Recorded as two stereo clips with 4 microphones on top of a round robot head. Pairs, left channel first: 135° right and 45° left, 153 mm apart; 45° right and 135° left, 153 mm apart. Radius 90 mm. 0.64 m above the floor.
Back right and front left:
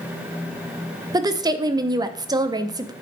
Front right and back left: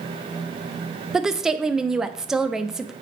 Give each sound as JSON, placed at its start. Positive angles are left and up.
{"t": 1.1, "sound": "a woman speaking", "azimuth_deg": 55, "distance_m": 0.5}